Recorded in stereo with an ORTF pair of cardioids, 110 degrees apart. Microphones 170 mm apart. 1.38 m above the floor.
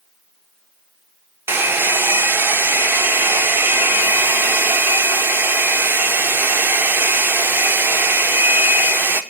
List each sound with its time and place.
1.5 s a hair dryer: 15° right, 0.9 m